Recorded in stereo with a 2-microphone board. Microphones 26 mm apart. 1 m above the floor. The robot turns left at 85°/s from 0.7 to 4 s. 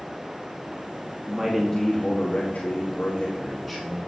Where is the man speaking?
155° right, 1.7 m; by 4.1 s 25° right, 1.7 m.